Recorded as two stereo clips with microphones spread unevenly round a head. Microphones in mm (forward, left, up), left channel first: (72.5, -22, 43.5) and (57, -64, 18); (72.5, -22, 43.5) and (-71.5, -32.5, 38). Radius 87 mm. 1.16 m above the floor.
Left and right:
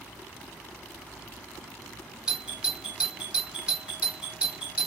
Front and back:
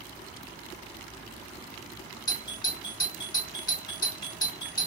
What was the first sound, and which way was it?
A doorbell, 55° right.